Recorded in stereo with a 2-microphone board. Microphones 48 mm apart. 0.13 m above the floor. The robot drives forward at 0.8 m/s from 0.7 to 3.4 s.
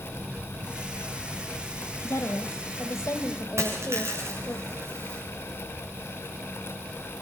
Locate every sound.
2.0 s a woman speaking: 70° left (ahead or behind), 3 m; by 4.6 s 65° left (ahead or behind), 3.5 m
3.6 s a dropped coin: 65° right (ahead or behind), 9.5 m